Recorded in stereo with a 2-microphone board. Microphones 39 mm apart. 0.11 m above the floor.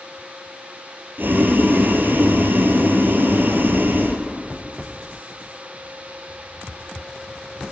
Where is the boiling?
60° right (ahead or behind), 1.7 m.